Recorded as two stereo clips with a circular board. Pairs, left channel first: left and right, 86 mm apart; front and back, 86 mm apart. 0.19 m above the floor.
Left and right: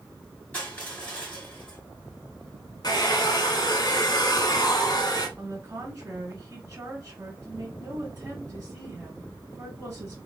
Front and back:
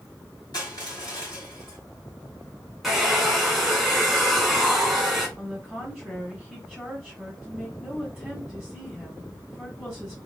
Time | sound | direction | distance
0.5 | crushing | 20° left | 3 m
2.8 | a hair dryer | 95° left | 1.4 m
5.4 | a woman speaking | 90° right | 1.5 m